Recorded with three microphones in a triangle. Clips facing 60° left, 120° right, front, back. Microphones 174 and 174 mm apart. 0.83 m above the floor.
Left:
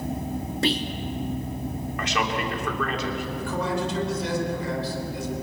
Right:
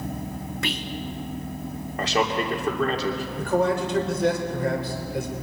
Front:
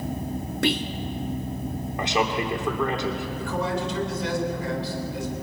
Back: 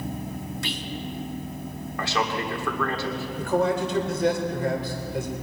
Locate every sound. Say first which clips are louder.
0.6 s whispering: left 7 dB, front 8 dB; 5° left, 1.5 m
2.0 s a man speaking: right 4 dB, front 2 dB; 65° right, 2.5 m
3.4 s a man speaking: right 7 dB, back 7 dB; 150° right, 4 m